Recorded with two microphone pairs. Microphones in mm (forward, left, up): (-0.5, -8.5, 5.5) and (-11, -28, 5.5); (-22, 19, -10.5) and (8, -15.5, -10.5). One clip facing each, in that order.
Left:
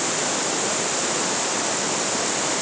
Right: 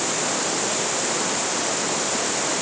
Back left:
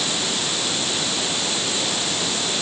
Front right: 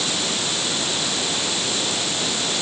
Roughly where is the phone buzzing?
I don't hear a phone buzzing.